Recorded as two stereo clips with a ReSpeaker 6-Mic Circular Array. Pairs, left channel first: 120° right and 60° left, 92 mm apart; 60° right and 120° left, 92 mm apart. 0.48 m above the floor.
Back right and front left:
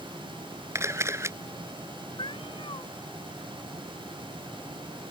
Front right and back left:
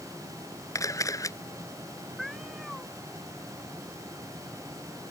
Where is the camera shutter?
Straight ahead.